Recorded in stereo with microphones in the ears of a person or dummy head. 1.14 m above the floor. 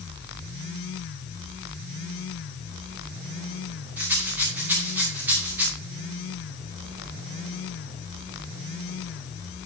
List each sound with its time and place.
4.0 s a rattle: 5° right (ahead or behind), 2.5 m